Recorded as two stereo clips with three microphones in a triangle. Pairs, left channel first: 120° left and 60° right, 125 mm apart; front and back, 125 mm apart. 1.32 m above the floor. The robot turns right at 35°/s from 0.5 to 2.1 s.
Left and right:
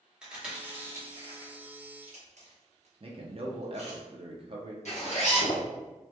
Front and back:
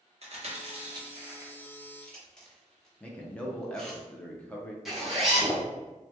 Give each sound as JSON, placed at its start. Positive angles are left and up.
{"t": 0.2, "sound": "chewing", "azimuth_deg": -140, "distance_m": 1.2}
{"t": 3.0, "sound": "a man speaking", "azimuth_deg": -80, "distance_m": 0.8}
{"t": 4.8, "sound": "a zipper", "azimuth_deg": 90, "distance_m": 1.3}